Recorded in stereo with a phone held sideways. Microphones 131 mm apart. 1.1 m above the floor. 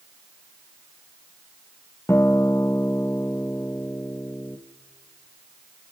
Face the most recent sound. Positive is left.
turn(degrees=20)  # may be behind; listen again after turning